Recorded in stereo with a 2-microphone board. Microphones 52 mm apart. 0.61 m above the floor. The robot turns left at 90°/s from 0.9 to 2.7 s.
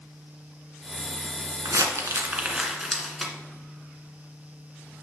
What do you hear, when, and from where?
1.6 s crumpling: 75° right (ahead or behind), 1.7 m; by 3.3 s 5° right (ahead or behind), 1.7 m